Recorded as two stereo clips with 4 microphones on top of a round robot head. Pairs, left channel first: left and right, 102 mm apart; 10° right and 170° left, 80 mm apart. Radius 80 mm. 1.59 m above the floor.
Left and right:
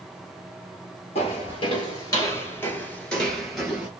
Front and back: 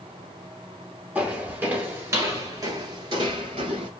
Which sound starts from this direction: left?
Footsteps, at 1.1 s.